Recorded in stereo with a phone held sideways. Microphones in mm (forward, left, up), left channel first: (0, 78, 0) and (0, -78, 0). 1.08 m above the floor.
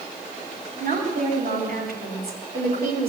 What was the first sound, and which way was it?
A woman speaking, 70° right (ahead or behind).